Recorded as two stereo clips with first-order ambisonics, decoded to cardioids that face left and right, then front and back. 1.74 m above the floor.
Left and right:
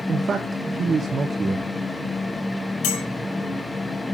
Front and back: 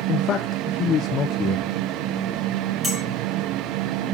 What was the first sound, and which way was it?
A man speaking, 35° right.